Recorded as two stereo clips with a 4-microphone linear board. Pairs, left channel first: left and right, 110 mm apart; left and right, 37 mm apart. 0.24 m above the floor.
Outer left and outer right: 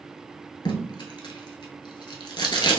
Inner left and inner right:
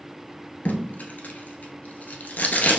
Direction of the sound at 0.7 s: 45° left (ahead or behind).